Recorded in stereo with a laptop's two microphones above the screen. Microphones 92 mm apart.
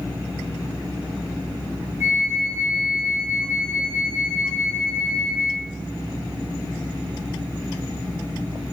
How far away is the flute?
About 3.5 m.